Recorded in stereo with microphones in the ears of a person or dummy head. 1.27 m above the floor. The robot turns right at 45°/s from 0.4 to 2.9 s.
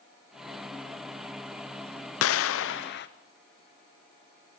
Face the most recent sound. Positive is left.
turn(degrees=120)